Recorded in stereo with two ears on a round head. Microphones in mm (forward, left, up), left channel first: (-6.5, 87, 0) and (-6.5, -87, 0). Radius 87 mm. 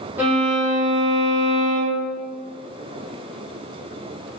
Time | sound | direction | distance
0.2 | a violin | 10° right (ahead or behind) | 0.7 m